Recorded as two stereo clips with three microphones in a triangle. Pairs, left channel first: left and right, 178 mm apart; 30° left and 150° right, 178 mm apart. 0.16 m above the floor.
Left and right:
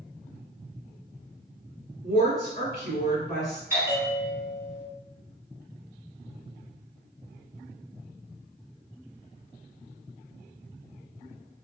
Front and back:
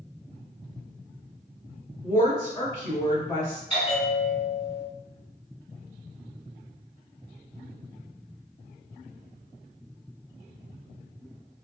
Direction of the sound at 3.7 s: 20° right.